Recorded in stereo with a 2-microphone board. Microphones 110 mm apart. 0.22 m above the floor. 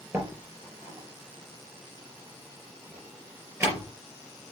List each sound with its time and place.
0.1 s a door slam: 25° right (ahead or behind), 4 m